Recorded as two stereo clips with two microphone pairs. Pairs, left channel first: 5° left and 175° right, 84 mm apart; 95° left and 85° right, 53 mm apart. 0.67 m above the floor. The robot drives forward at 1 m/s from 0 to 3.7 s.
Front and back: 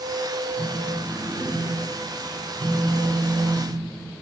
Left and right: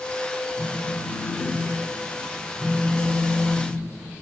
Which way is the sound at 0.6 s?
50° left.